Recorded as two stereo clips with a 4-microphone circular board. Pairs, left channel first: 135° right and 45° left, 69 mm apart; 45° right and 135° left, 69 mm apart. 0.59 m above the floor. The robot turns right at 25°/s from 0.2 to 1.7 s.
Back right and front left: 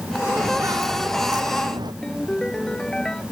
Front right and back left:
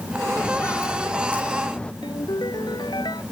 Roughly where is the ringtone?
Ahead right.